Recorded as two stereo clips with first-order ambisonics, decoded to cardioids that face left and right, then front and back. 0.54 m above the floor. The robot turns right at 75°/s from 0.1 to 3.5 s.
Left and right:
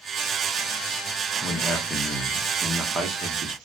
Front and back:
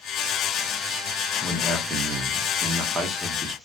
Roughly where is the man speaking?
Behind left.